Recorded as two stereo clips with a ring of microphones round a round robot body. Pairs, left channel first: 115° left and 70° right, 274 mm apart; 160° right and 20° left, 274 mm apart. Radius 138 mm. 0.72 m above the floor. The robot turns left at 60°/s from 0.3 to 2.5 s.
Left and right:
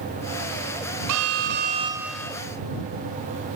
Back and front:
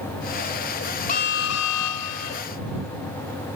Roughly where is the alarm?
Right.